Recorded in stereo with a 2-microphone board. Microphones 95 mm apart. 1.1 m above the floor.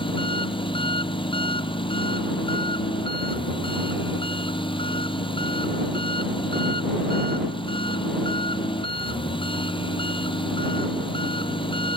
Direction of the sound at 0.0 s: 65° left (ahead or behind).